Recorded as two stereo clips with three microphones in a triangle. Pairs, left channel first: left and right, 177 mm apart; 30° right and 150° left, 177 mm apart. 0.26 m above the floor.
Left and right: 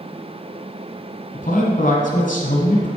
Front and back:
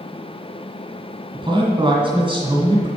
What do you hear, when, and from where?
1.3 s a man speaking: 100° left, 1.6 m